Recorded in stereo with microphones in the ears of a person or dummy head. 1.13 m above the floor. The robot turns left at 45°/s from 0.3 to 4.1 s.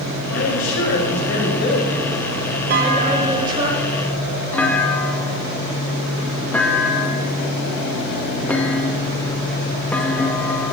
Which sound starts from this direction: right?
A clunk, at 2.7 s.